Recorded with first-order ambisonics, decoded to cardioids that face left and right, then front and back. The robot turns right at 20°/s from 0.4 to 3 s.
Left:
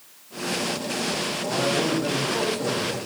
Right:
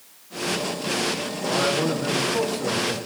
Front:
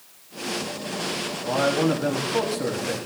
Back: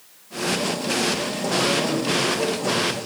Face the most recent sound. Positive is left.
turn(degrees=20)